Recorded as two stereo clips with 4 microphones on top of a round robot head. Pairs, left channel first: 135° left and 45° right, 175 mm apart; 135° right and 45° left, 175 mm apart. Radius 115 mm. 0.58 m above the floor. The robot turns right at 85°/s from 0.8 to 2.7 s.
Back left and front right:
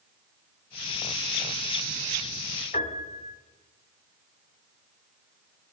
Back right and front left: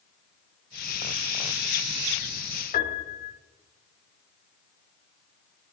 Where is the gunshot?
No gunshot in this recording.